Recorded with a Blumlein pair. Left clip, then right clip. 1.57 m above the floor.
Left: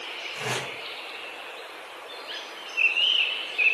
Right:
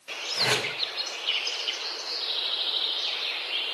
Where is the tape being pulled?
65° right, 3.5 m.